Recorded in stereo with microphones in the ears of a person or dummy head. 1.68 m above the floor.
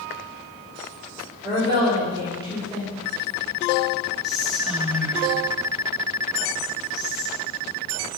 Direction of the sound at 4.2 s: Centre (ahead or behind).